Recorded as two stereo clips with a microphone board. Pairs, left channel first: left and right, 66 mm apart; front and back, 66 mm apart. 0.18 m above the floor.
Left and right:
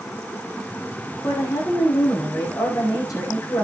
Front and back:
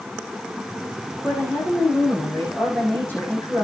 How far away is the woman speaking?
About 8 m.